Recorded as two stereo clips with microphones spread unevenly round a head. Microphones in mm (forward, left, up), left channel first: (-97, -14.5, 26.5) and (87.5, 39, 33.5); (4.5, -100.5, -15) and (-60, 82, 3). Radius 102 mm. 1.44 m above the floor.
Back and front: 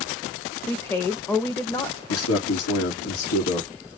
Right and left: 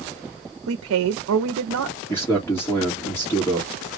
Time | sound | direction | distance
0.7 | a woman speaking | 115° left | 0.7 m
2.1 | a man speaking | 150° right | 1.8 m